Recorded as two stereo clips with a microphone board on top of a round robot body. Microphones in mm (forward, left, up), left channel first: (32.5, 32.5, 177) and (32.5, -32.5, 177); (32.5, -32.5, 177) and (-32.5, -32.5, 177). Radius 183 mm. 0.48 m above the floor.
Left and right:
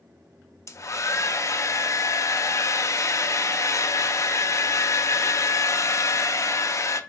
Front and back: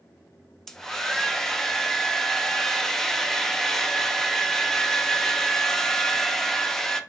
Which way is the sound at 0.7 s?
80° left.